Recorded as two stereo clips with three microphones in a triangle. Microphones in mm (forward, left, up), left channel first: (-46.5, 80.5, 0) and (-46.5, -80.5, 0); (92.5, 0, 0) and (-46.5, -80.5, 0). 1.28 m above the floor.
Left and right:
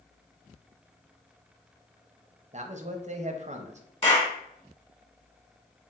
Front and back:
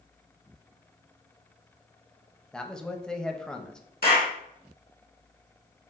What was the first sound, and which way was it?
A man speaking, 55° right.